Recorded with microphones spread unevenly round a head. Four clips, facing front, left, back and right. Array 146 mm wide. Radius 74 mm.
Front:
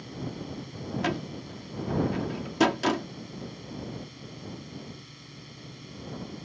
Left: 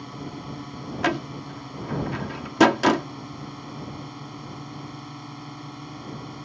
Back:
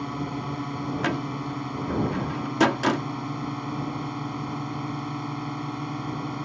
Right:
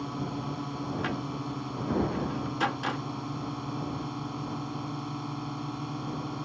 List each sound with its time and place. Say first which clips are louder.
0.0 s a drone: right 2 dB, back 7 dB; 170° right
1.0 s a door slam: left 6 dB, back 2 dB; 100° left